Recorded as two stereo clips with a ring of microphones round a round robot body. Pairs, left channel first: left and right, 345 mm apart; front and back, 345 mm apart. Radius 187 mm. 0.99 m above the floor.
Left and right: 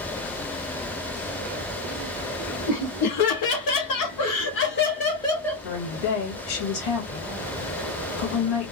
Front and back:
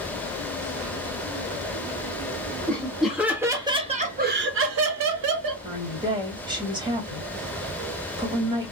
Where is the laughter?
85° left, 1.3 m; by 5.6 s straight behind, 0.9 m.